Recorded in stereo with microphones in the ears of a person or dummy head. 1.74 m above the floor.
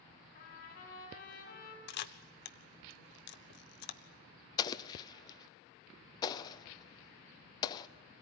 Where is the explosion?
30° left (ahead or behind), 0.8 m.